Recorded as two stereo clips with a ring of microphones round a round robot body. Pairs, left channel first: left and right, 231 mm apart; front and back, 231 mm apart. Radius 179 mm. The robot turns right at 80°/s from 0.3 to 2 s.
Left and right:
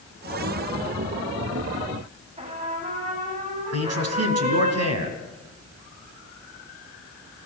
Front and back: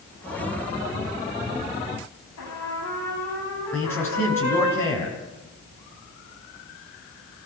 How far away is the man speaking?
About 4.5 m.